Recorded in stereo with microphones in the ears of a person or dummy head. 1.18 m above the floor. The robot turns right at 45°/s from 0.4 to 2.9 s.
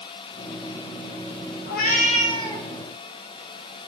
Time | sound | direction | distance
1.7 | a cat meowing | 125° left | 0.8 m